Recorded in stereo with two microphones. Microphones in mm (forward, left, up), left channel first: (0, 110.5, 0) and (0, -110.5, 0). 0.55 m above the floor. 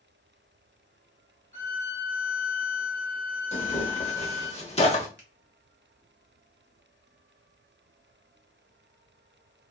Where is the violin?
15° left (ahead or behind), 1.3 m.